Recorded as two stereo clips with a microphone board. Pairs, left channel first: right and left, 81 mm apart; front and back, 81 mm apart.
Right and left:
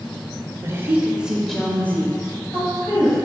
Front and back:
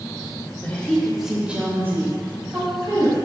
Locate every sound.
0.6 s a woman speaking: 65° left, 1.3 m; by 3.1 s 135° right, 2.5 m